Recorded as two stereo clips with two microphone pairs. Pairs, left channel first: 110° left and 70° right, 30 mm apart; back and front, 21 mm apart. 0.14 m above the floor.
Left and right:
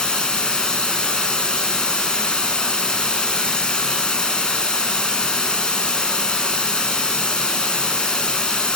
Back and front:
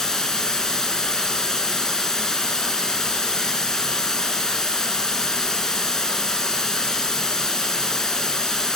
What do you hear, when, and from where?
0.0 s running water: 140° left, 0.9 m